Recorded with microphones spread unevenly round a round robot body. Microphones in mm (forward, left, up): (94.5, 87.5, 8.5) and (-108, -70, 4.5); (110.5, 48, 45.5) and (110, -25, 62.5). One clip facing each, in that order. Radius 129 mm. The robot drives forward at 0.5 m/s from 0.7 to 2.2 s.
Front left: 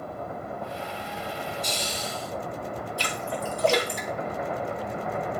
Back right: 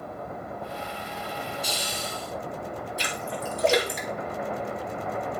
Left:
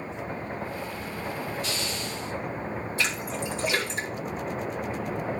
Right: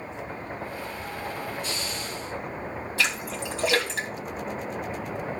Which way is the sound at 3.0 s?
70° right.